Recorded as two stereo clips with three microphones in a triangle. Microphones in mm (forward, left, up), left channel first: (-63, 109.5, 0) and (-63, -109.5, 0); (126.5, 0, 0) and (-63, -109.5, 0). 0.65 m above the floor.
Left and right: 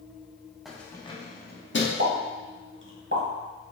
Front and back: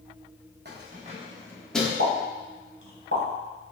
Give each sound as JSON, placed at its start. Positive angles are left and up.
{"t": 0.7, "sound": "keys jangling", "azimuth_deg": 180, "distance_m": 0.7}
{"t": 2.0, "sound": "a pop", "azimuth_deg": -130, "distance_m": 1.1}